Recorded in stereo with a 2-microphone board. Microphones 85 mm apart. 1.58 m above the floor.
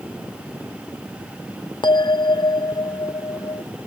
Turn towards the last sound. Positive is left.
turn(degrees=60)  # may be behind; listen again after turning